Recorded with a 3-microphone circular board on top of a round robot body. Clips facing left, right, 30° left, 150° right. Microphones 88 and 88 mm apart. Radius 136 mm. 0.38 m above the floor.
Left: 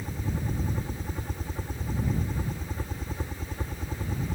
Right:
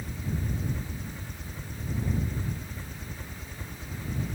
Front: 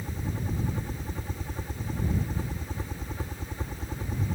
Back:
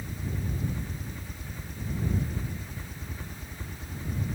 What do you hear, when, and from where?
0.0 s a helicopter: 65° left